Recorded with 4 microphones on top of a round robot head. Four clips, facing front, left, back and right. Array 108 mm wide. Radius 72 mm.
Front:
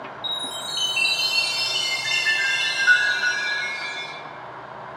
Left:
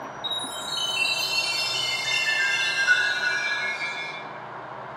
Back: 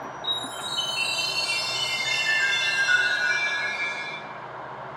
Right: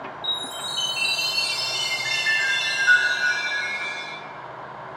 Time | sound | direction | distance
0.2 | a chime | 20° right | 3.5 m